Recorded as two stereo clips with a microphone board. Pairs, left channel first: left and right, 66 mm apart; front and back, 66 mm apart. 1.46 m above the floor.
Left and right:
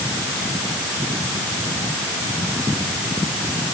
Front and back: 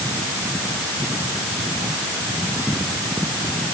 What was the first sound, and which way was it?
Only background noise.